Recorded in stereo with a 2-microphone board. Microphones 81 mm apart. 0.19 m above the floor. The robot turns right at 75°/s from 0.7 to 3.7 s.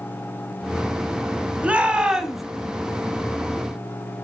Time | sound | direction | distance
1.6 | a shout | 15° right (ahead or behind) | 1.1 m